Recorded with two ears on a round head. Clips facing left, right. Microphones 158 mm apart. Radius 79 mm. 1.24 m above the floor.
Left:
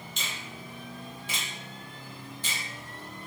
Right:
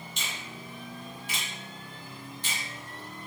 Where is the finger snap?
65° left (ahead or behind), 1.0 m.